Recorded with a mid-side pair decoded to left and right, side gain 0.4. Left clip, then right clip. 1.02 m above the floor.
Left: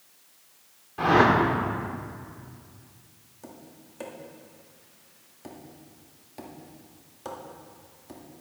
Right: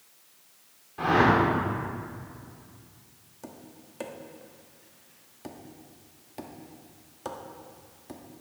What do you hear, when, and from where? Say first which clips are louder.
1.0 s a whoosh: left 2 dB; 30° left, 3 m
3.4 s tapping: right 1 dB; 25° right, 1.7 m